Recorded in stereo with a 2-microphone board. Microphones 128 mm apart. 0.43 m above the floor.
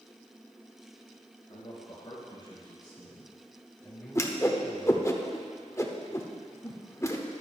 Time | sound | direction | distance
1.5 | a man speaking | 45° left (ahead or behind) | 4.5 m
4.2 | a whoosh | 25° left (ahead or behind) | 1.0 m